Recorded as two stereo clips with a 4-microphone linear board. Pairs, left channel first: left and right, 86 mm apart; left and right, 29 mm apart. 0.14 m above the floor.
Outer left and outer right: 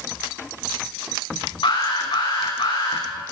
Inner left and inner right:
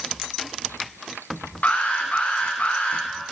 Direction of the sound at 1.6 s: 75° left (ahead or behind).